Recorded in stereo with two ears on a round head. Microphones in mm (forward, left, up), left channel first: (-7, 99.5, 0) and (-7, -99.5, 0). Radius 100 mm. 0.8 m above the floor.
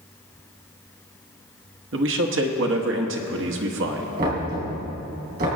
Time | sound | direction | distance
1.9 | a man speaking | 60° right (ahead or behind) | 1.2 m
4.2 | knocking | 45° right (ahead or behind) | 4 m